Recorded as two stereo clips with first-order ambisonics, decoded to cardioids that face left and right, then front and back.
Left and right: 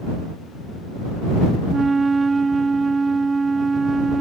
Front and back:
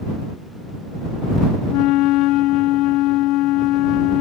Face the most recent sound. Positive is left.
turn(degrees=-15)